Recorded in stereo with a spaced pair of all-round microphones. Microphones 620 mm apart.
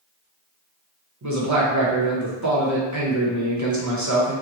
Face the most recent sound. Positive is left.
turn(degrees=-30)  # may be behind; listen again after turning